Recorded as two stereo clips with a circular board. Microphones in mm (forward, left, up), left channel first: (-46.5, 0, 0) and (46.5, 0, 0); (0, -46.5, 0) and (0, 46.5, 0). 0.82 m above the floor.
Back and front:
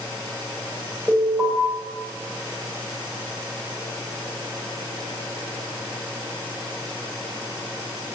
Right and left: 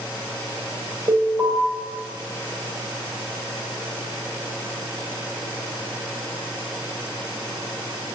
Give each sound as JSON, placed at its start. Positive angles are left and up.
{"t": 1.1, "sound": "an alarm", "azimuth_deg": 65, "distance_m": 2.5}